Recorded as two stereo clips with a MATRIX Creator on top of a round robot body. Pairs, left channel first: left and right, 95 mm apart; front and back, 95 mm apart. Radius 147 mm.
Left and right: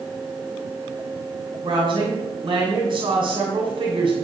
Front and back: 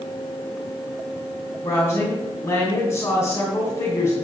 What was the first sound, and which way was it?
A woman speaking, 55° right.